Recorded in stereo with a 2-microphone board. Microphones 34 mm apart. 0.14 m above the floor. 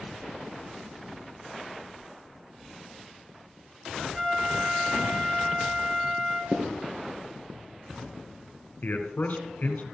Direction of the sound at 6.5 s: 55° right (ahead or behind).